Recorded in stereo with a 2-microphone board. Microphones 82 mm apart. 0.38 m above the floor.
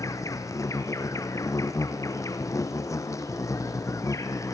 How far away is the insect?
About 2.5 m.